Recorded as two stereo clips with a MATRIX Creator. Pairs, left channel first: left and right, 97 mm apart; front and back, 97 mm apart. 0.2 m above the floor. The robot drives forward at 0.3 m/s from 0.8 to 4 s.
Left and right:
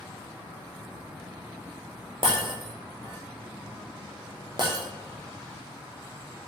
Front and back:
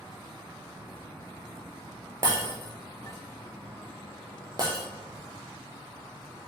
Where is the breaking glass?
125° right, 3 m; by 4.8 s 135° right, 3.5 m.